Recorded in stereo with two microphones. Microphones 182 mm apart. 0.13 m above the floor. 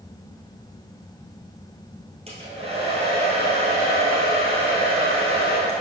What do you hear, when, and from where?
2.3 s a hair dryer: 35° right (ahead or behind), 2.5 m